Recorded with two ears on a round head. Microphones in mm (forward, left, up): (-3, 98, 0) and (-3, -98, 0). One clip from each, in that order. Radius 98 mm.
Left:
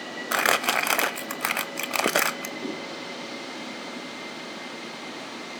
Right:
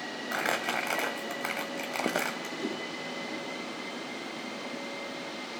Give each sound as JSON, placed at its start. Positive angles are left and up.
{"t": 0.3, "sound": "crumpling", "side_deg": 40, "distance_m": 0.8}
{"t": 2.6, "sound": "a whoosh", "side_deg": -5, "distance_m": 5.0}